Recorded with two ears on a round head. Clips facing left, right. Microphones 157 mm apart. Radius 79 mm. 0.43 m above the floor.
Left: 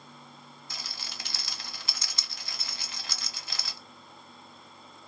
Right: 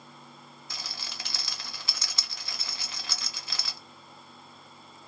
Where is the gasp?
No gasp in this recording.